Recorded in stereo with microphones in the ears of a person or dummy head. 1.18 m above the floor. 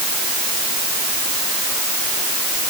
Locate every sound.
Only background noise.